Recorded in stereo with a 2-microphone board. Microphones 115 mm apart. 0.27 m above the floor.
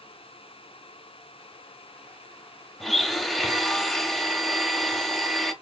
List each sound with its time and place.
2.8 s a blender: centre (ahead or behind), 1.0 m